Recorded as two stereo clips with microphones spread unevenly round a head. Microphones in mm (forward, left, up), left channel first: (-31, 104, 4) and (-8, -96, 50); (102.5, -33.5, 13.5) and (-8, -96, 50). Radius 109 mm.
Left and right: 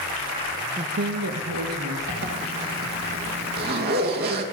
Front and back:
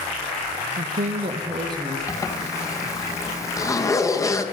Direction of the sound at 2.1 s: 35° right.